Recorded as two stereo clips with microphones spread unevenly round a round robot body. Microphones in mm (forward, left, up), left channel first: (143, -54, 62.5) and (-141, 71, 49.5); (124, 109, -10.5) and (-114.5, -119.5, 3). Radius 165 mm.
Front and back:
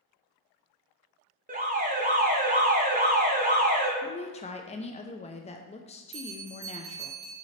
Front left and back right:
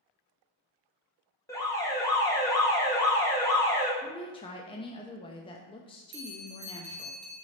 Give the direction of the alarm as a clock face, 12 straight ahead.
8 o'clock.